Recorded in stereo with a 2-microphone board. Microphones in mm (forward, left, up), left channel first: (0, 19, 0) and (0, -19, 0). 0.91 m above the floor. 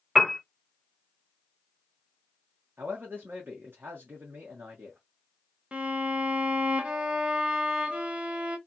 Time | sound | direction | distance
0.1 | a piano | 10° right (ahead or behind) | 0.6 m
2.8 | a man speaking | 65° right (ahead or behind) | 1.1 m
5.7 | a violin | 30° right (ahead or behind) | 0.6 m